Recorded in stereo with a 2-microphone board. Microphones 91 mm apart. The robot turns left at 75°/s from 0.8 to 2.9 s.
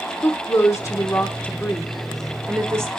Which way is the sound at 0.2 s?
35° left (ahead or behind).